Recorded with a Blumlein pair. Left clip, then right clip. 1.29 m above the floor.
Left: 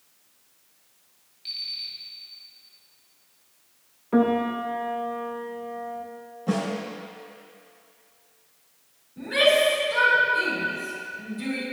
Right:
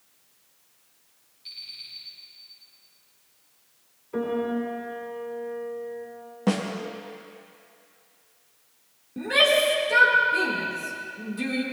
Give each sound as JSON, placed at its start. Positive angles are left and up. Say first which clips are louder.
{"t": 1.4, "sound": "an alarm clock", "louder": "left 7 dB", "azimuth_deg": 25, "distance_m": 3.5}
{"t": 4.1, "sound": "a piano", "louder": "left 4 dB", "azimuth_deg": 45, "distance_m": 1.7}
{"t": 6.5, "sound": "a snare drum", "louder": "right 1 dB", "azimuth_deg": -55, "distance_m": 1.7}
{"t": 9.2, "sound": "a shout", "louder": "even", "azimuth_deg": -40, "distance_m": 3.0}